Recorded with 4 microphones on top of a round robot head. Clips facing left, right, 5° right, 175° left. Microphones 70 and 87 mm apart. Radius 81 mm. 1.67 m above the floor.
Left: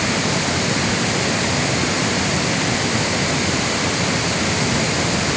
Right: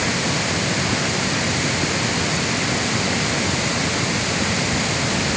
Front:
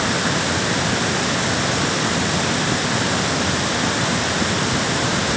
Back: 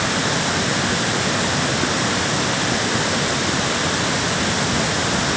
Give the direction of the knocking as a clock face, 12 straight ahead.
No knocking in this recording.